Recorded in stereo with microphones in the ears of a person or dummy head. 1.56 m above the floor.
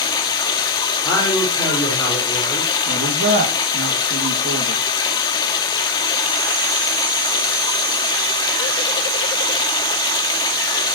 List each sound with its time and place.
0.0 s running water: 20° left (ahead or behind), 2 m
1.0 s a man speaking: 20° left (ahead or behind), 6 m
2.9 s a man speaking: 75° right (ahead or behind), 3 m